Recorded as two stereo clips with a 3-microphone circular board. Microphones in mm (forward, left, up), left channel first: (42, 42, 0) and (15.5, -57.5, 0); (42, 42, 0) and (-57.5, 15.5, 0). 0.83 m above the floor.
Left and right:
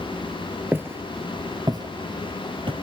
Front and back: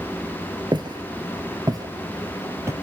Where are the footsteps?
165° right, 1.1 m; by 2.7 s 105° right, 1.4 m.